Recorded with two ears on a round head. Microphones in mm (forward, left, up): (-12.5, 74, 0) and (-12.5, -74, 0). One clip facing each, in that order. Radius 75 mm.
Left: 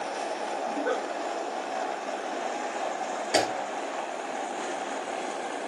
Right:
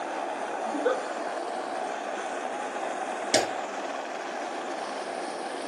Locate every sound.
0.7 s a giggle: 60° right (ahead or behind), 1.8 m
3.3 s a clap: 65° right (ahead or behind), 2 m